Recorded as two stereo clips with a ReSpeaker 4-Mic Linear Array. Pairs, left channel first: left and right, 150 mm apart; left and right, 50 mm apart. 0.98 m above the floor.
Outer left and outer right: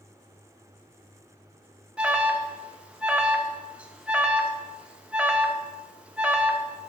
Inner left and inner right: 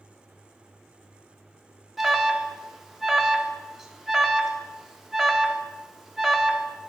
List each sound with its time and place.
2.0 s an alarm: 5° right (ahead or behind), 0.6 m